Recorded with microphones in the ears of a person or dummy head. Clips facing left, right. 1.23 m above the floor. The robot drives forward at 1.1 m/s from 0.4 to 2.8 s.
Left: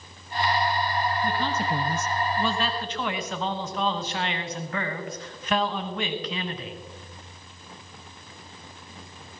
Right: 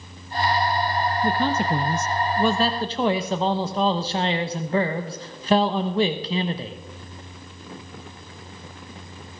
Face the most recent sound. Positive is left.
turn(degrees=-30)  # may be behind; listen again after turning